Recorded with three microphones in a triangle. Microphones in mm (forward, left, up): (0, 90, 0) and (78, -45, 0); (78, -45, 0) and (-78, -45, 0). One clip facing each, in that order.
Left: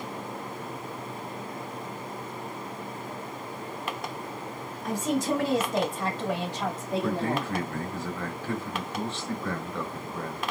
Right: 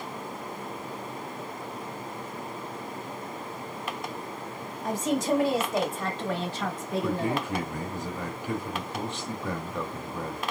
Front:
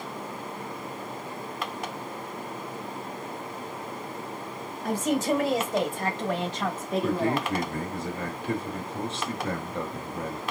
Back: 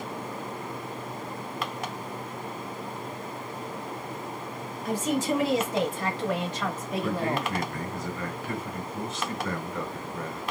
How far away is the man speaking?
About 1.0 m.